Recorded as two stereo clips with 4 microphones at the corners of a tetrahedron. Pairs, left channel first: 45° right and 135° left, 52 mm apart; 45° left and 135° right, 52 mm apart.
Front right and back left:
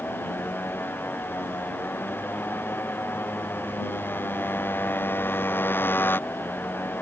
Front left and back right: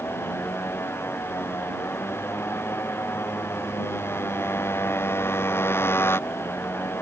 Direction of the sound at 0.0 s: Straight ahead.